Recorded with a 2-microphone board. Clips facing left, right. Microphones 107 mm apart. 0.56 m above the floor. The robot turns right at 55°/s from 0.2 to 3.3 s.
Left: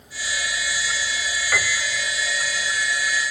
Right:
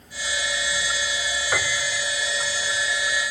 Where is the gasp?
I don't hear a gasp.